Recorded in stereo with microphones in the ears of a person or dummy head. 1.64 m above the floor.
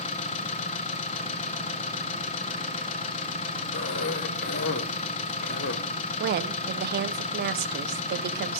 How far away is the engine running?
About 0.9 m.